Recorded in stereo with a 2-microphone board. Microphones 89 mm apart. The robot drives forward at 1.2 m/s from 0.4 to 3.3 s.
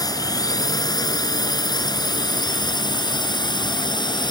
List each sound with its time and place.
0.0 s a drone: 45° left (ahead or behind); by 4.3 s 55° left (ahead or behind)